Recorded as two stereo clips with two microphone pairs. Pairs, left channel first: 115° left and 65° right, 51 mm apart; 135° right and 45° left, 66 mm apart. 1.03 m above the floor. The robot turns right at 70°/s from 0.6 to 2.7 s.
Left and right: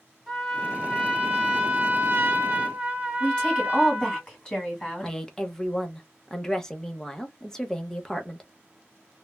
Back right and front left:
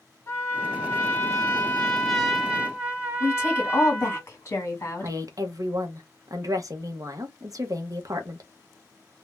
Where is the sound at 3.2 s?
Straight behind, 1.8 m.